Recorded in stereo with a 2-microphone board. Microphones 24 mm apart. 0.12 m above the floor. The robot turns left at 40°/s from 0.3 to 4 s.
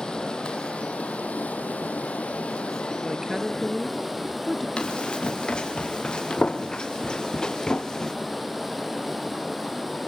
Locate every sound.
0.0 s running water: 150° left, 3 m; by 10.1 s straight ahead, 3 m
3.0 s a woman speaking: 150° right, 2.0 m; by 4.7 s 170° left, 2.0 m
4.8 s running footsteps: 35° left (ahead or behind), 5.5 m; by 8.2 s 20° left (ahead or behind), 2.5 m